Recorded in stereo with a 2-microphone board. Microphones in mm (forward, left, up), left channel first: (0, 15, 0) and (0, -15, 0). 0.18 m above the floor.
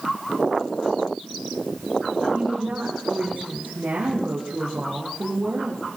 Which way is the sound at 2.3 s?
80° right.